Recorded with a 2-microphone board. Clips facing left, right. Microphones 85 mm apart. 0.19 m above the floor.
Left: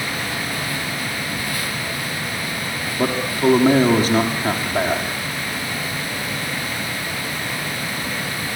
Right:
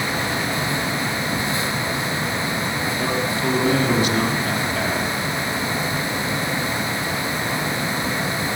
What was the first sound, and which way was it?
A man speaking, 40° left (ahead or behind).